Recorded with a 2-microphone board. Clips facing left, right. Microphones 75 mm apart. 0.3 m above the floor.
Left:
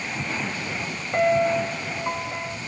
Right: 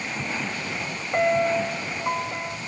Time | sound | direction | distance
1.1 | a piano | 5° right (ahead or behind) | 1.1 m